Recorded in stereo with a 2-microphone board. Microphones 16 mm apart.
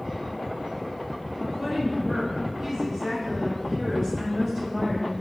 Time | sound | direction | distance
1.4 | a woman speaking | 20° right (ahead or behind) | 1.5 m